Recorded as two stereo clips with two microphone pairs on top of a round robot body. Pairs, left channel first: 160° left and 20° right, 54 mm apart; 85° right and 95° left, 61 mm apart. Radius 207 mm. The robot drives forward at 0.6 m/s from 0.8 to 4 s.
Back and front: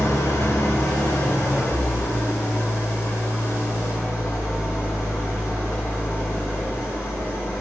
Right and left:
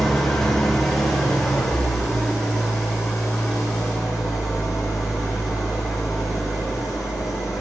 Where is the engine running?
170° right, 2 m; by 7.6 s 175° right, 4 m.